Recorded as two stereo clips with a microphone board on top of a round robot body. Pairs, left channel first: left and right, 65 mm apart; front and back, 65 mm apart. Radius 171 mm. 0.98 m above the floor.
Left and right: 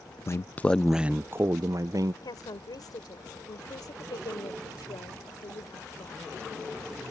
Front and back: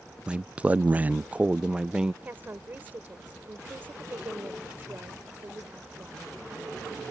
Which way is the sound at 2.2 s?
115° left.